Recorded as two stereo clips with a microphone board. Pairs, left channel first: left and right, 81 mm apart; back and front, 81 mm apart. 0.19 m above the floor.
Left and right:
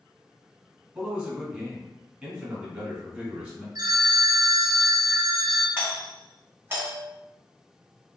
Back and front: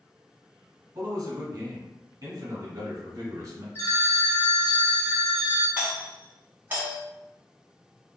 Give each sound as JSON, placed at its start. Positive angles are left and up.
{"t": 0.9, "sound": "a man speaking", "azimuth_deg": -20, "distance_m": 1.6}
{"t": 3.8, "sound": "a phone ringing", "azimuth_deg": -125, "distance_m": 1.5}
{"t": 5.8, "sound": "a doorbell", "azimuth_deg": -55, "distance_m": 1.7}